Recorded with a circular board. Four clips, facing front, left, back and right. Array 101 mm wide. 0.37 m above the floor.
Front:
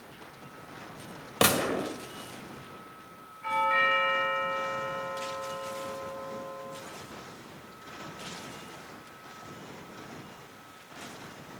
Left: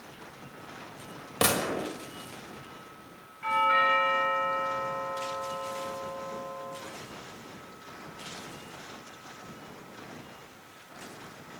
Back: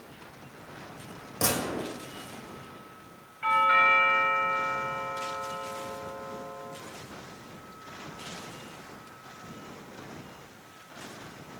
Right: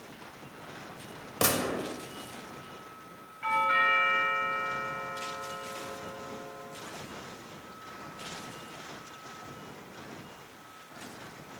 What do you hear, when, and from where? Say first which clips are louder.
1.4 s a gunshot: left 2 dB, front 4 dB; 15° left, 1.1 m
3.4 s a doorbell: left 2 dB, back 4 dB; 170° right, 2.5 m